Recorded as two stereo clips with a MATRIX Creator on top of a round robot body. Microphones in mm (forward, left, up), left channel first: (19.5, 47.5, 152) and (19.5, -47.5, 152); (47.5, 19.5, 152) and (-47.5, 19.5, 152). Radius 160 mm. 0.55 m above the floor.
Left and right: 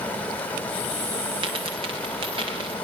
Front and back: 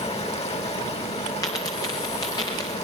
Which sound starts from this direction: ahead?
Running water, at 0.0 s.